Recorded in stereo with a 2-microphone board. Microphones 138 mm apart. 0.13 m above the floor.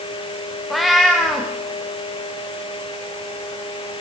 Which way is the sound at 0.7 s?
Centre (ahead or behind).